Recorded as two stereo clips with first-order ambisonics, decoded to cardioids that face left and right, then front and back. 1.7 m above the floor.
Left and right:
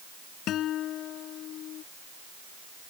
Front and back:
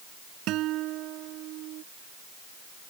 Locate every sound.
0.5 s a guitar: 140° left